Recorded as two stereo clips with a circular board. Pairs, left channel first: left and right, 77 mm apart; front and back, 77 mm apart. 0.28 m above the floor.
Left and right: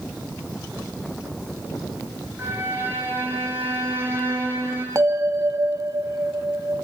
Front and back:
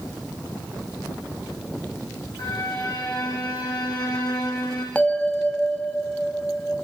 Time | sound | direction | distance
2.4 | a violin | 25° right | 9.5 m
5.0 | a bell | 65° right | 1.9 m